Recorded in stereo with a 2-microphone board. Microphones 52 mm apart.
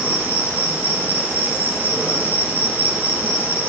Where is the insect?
30° right (ahead or behind), 1.4 m.